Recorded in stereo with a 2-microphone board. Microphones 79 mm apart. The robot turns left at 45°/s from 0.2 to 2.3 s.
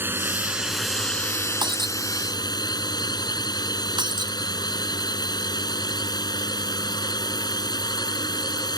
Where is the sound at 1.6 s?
85° right; by 2.0 s 80° right.